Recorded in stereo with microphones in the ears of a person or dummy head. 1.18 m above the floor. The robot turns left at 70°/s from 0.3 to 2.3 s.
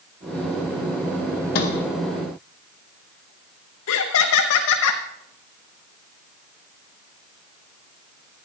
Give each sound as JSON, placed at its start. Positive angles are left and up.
{"t": 1.6, "sound": "a sliding door", "side_deg": 40, "distance_m": 0.9}
{"t": 3.9, "sound": "laughter", "side_deg": 70, "distance_m": 0.8}